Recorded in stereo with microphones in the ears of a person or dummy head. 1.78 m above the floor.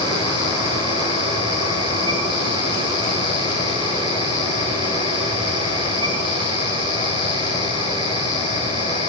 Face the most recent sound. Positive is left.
turn(degrees=-30)  # may be behind; listen again after turning